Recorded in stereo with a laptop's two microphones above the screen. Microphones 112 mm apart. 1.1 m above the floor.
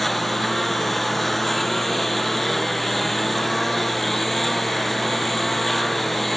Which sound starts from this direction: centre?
A lawn mower, at 0.0 s.